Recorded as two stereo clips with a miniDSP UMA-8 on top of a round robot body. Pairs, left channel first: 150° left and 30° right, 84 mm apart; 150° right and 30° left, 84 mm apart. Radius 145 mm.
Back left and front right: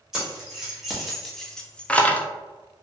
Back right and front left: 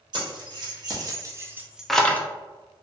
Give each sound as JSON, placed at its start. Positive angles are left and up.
{"t": 0.1, "sound": "keys jangling", "azimuth_deg": 55, "distance_m": 1.4}